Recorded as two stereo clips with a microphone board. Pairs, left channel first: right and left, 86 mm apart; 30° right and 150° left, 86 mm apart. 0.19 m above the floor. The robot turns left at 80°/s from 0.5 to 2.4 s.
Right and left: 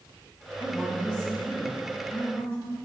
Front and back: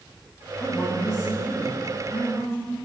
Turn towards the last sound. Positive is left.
turn(degrees=-115)